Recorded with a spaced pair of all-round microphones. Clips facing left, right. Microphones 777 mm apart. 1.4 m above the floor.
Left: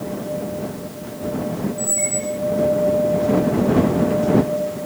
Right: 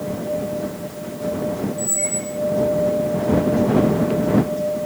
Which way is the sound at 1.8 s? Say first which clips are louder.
Left 1 dB; 35° left (ahead or behind).